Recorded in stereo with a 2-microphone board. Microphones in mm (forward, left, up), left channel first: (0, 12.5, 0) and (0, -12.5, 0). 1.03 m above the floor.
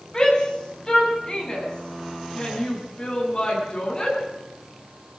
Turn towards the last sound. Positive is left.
turn(degrees=40)  # may be behind; listen again after turning